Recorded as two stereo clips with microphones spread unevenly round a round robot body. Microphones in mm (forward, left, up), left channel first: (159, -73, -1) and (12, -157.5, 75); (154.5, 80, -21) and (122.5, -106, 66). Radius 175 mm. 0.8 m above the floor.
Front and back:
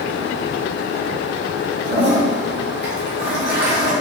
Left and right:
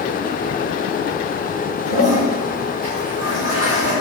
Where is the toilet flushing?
110° right, 1.7 m.